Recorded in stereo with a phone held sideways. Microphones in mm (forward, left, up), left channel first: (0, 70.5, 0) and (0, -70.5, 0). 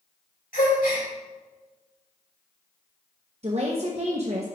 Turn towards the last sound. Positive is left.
turn(degrees=-50)  # may be behind; listen again after turning